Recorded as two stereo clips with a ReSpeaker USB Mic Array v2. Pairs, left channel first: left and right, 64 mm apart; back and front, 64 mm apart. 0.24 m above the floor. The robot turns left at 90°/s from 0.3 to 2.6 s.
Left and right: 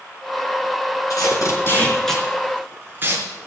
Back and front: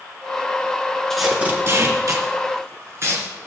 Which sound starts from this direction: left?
Tape being pulled, at 1.1 s.